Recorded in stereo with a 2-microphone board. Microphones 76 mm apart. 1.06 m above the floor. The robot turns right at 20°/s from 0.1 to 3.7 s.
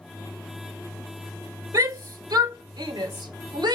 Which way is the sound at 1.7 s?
55° right (ahead or behind).